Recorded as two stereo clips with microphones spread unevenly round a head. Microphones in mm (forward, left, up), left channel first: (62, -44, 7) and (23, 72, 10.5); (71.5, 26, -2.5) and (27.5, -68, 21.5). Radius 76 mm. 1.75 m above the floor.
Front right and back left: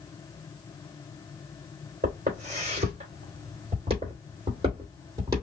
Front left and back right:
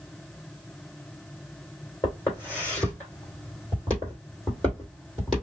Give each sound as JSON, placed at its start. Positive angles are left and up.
{"t": 2.0, "sound": "footsteps", "azimuth_deg": 145, "distance_m": 4.0}